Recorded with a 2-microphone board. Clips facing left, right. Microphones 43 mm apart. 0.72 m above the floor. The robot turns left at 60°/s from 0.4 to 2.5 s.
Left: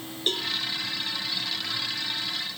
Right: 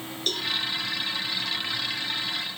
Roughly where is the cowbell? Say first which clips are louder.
Left 1 dB; centre.